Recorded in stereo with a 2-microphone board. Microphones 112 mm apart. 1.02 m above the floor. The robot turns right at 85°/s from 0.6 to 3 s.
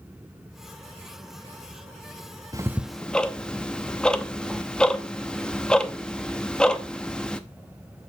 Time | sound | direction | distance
2.5 | ticking | 30° right (ahead or behind) | 0.7 m